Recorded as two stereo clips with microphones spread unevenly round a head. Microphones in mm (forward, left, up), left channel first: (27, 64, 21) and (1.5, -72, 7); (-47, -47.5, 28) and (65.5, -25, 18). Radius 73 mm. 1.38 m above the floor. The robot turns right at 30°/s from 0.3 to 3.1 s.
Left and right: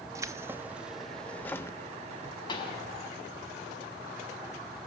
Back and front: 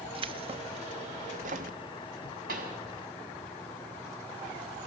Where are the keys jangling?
30° right, 1.3 m; by 1.8 s 15° left, 1.3 m.